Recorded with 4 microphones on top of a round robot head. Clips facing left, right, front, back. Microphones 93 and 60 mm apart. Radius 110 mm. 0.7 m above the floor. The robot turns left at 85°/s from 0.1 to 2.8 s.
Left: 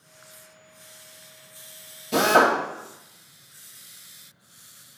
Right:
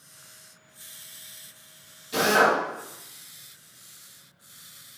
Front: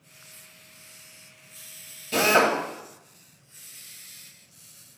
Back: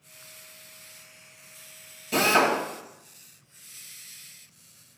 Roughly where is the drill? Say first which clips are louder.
Left 2 dB, front 1 dB; left.